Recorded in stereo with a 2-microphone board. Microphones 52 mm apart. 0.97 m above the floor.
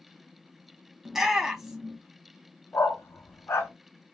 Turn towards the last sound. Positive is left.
turn(degrees=70)  # may be behind; listen again after turning